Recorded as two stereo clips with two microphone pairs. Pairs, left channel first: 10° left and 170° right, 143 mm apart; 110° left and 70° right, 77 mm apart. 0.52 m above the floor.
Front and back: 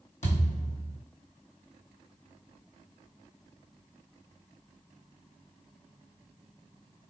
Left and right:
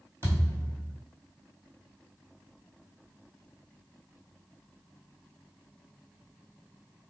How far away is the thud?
About 1.5 m.